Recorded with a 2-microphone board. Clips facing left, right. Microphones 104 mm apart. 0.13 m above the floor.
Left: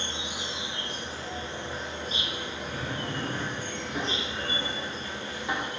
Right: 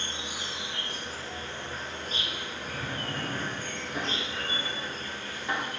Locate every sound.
0.0 s an insect: 20° left (ahead or behind), 1.1 m
2.7 s a drawer: 5° left (ahead or behind), 4 m